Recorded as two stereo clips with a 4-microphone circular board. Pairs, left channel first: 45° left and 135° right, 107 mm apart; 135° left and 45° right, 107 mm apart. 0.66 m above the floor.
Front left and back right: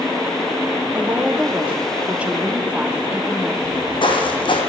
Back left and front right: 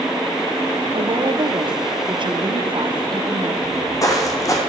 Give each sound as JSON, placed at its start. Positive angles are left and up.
{"t": 0.9, "sound": "a woman speaking", "azimuth_deg": -60, "distance_m": 0.9}
{"t": 3.6, "sound": "footsteps", "azimuth_deg": 80, "distance_m": 1.6}